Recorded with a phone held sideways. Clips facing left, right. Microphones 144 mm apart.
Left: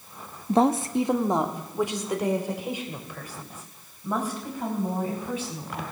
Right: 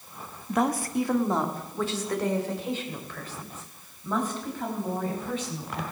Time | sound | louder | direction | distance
0.5 | a woman speaking | left 5 dB | 30° left (ahead or behind) | 0.8 m